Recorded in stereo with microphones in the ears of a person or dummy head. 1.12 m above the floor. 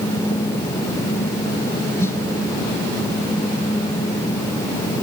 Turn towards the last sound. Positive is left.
turn(degrees=15)  # may be behind; listen again after turning